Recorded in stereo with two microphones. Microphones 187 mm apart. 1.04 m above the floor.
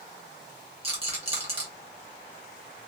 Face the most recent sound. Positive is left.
turn(degrees=-30)  # may be behind; listen again after turning